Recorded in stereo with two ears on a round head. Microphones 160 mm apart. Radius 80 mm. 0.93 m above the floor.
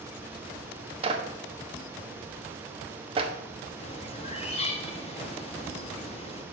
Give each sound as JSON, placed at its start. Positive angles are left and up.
{"t": 1.0, "sound": "a clap", "side_deg": -30, "distance_m": 1.3}
{"t": 3.8, "sound": "a bird", "side_deg": 35, "distance_m": 1.7}